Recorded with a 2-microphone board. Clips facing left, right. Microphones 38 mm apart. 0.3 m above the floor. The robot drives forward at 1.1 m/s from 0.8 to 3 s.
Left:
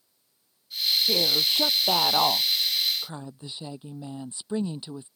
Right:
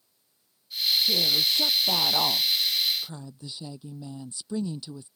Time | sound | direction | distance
1.1 | a woman speaking | 35° left (ahead or behind) | ?